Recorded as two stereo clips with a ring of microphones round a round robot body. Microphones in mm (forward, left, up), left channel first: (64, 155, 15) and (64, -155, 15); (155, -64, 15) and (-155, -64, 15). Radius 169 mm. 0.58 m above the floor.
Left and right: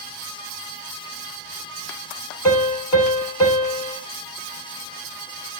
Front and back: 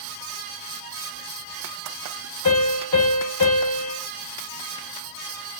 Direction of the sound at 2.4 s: 15° left.